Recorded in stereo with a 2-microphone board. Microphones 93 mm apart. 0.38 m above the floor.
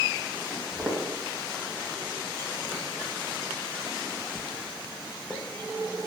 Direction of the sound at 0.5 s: 5° right (ahead or behind).